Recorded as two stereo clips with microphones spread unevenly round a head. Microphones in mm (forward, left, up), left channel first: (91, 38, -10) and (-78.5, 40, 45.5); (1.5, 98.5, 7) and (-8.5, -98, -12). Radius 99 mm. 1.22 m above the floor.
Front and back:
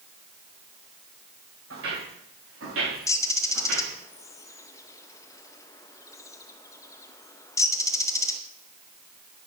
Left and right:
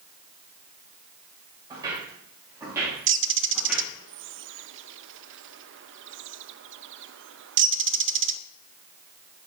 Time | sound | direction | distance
1.7 | footsteps | 165° right | 8 m
3.1 | a bird | 90° right | 0.5 m